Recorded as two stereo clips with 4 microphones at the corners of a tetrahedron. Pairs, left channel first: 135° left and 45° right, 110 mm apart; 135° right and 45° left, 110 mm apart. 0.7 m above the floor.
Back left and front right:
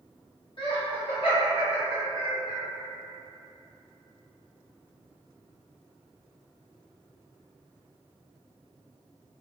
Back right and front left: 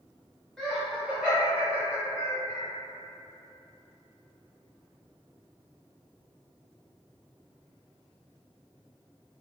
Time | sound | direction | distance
0.6 | laughter | 140° left | 1.1 m